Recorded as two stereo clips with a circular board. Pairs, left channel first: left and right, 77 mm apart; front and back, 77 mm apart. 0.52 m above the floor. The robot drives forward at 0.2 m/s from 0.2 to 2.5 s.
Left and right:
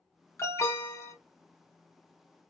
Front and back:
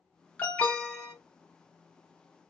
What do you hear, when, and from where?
0.4 s an alarm: 60° left, 0.7 m; by 1.1 s 80° left, 0.6 m